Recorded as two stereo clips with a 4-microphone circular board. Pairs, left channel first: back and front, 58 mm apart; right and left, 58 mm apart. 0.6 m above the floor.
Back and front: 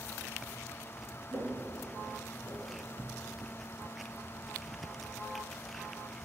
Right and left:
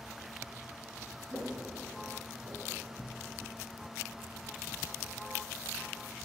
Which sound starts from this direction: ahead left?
Footsteps, at 1.3 s.